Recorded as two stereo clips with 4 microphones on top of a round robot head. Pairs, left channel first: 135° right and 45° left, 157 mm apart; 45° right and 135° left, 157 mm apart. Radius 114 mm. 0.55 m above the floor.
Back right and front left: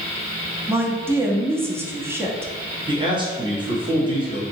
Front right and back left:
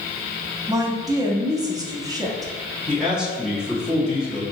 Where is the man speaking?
55° left, 1.4 m.